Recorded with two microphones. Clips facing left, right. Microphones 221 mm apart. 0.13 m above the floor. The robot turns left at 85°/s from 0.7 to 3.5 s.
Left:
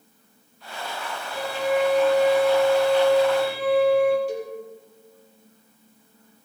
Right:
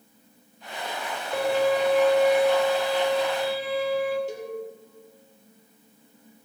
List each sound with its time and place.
1.3 s a violin: 120° right, 2 m; by 4.2 s 55° left, 2 m
4.3 s a cowbell: 20° right (ahead or behind), 4 m